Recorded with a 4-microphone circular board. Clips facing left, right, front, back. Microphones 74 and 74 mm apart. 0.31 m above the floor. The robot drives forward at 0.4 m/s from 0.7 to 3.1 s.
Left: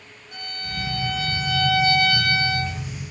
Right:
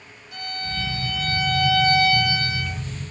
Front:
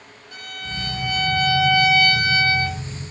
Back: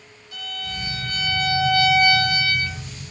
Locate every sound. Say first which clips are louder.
0.3 s a violin: right 3 dB, even; 50° left, 3.5 m; by 2.8 s 60° left, 3 m